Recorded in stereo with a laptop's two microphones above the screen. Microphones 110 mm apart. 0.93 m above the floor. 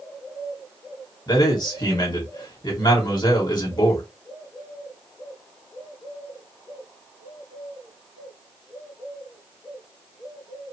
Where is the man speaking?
40° left (ahead or behind), 2 m.